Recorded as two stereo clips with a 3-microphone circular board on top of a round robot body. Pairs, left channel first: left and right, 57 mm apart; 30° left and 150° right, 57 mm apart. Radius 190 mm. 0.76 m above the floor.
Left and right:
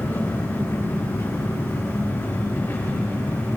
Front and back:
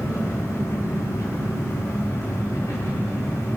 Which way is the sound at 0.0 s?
45° left.